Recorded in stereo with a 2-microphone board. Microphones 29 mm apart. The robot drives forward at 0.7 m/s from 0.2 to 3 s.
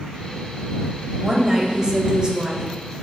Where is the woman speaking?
20° right (ahead or behind), 1.3 m; by 2.7 s 30° right (ahead or behind), 0.9 m.